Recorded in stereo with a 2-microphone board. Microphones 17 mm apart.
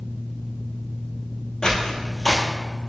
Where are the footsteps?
50° left (ahead or behind), 0.6 m.